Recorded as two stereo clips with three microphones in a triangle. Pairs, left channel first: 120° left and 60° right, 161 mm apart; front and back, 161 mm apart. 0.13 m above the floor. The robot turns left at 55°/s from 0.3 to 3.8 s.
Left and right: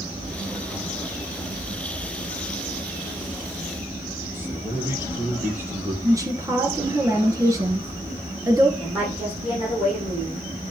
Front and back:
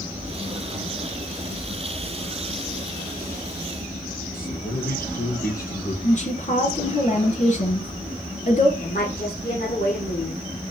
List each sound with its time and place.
4.3 s a man speaking: 15° left, 3 m
6.0 s a woman speaking: 5° left, 2.5 m
8.8 s a woman speaking: 20° left, 7 m